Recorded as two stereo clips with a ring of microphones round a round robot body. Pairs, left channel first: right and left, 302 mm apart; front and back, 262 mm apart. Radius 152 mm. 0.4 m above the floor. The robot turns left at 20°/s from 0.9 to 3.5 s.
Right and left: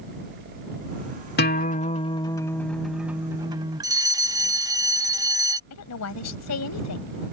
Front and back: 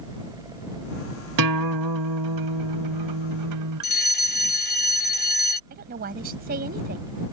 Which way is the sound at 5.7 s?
120° right.